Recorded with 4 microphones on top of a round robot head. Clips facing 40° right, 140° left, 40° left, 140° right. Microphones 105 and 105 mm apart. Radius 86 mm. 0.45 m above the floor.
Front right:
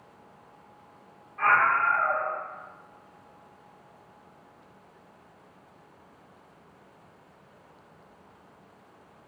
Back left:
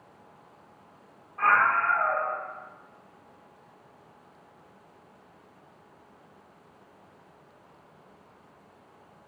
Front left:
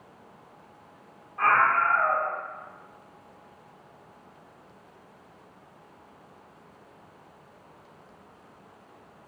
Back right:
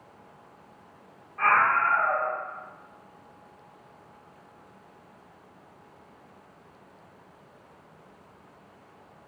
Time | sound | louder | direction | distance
1.4 | a scream | even, even | 90° left | 1.3 m